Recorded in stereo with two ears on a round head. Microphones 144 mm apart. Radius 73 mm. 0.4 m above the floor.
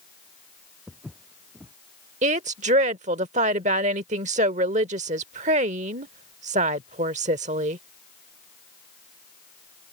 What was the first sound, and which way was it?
Footsteps, 5° right (ahead or behind).